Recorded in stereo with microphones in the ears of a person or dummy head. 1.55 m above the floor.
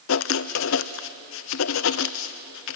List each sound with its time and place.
0.1 s writing: 70° left (ahead or behind), 0.6 m